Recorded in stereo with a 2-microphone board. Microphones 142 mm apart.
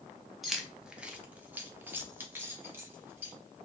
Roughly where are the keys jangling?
Centre.